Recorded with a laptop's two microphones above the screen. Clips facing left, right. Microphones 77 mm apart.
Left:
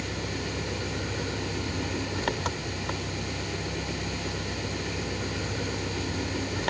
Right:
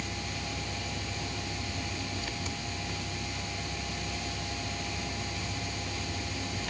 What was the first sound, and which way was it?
An engine running, 70° left (ahead or behind).